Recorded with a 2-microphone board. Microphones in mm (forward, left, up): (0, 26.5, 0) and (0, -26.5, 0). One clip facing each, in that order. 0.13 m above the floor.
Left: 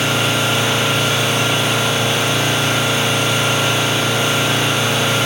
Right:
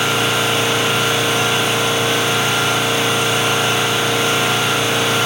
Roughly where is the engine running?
Centre.